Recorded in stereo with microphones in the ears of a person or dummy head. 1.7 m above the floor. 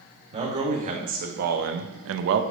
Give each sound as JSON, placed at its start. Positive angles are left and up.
{"t": 0.3, "sound": "a man speaking", "side_deg": -35, "distance_m": 1.6}